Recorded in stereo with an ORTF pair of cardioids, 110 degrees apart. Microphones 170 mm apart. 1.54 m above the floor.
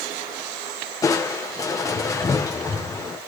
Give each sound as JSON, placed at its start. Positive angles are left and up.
{"t": 1.0, "sound": "crushing", "azimuth_deg": 20, "distance_m": 1.4}